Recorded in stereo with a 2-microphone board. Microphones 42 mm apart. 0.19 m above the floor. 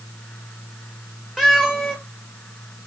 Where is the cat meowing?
10° left (ahead or behind), 3.5 m.